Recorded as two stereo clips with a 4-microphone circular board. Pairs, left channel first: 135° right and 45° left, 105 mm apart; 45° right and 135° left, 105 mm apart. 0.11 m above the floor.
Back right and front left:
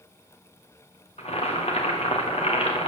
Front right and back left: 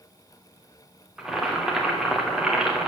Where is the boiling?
140° right, 3.5 m.